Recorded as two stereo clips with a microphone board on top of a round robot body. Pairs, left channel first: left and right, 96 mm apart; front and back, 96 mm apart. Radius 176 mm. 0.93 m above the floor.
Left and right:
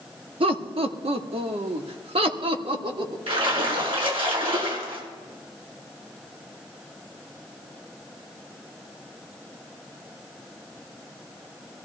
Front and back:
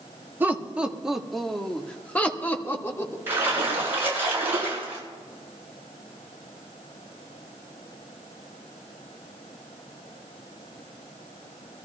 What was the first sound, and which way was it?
Laughter, 110° right.